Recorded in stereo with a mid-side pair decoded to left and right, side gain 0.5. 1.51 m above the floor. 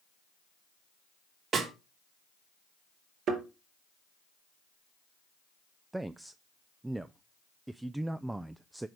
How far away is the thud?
About 4.5 m.